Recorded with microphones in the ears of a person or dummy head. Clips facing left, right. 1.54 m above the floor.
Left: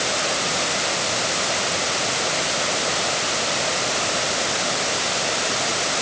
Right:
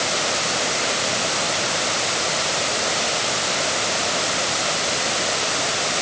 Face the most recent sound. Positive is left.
No sound to turn to.